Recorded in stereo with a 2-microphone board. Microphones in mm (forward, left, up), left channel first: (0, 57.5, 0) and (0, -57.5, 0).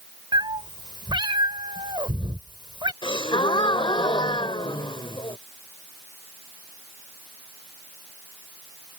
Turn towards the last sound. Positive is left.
turn(degrees=45)  # may be behind; listen again after turning